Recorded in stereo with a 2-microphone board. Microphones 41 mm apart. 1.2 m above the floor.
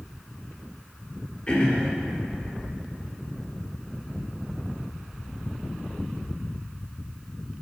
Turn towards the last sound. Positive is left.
turn(degrees=25)  # may be behind; listen again after turning